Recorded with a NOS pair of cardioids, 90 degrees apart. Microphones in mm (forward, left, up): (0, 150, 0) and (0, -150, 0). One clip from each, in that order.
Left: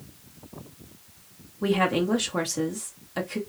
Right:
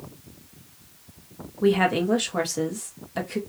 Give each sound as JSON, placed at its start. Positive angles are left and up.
{"t": 1.6, "sound": "a woman speaking", "azimuth_deg": 0, "distance_m": 2.0}